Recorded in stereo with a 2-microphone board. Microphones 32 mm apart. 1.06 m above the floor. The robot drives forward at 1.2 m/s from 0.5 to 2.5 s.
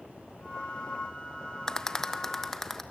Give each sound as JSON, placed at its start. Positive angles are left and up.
{"t": 1.7, "sound": "a rattle", "side_deg": 20, "distance_m": 0.7}